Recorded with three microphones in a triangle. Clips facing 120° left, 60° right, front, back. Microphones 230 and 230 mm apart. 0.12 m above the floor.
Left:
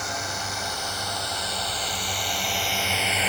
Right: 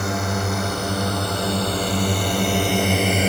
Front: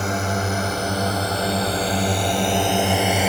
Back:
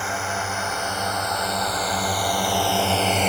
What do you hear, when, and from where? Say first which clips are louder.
0.0 s a drone: right 11 dB, front 6 dB; 45° right; by 3.3 s 80° right